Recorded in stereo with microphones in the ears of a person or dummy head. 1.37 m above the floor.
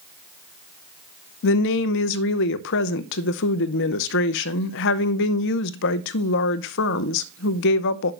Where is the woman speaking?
65° left (ahead or behind), 0.7 m.